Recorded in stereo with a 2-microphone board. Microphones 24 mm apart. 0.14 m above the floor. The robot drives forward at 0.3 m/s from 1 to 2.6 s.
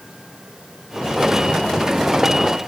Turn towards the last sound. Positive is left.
No sound to turn to.